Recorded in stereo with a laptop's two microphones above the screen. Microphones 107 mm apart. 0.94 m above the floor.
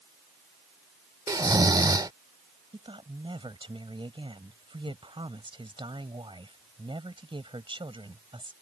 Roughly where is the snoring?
Right.